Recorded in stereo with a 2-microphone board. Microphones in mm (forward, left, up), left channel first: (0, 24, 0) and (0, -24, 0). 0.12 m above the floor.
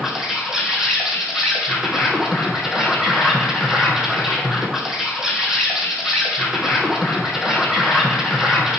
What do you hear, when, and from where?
0.0 s an insect: 10° right (ahead or behind), 1.9 m